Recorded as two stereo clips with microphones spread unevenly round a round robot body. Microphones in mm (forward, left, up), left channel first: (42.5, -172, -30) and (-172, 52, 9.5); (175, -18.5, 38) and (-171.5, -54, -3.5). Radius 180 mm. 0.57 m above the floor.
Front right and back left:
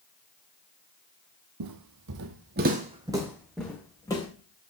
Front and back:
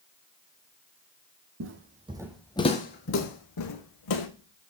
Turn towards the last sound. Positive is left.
turn(degrees=35)